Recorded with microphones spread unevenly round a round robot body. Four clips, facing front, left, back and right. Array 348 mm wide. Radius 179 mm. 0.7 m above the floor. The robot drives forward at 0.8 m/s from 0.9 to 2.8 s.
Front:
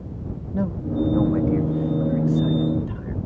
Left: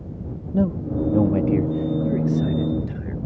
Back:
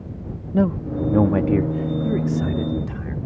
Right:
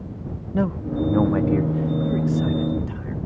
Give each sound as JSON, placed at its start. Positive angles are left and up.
{"t": 0.5, "sound": "a man speaking", "azimuth_deg": 155}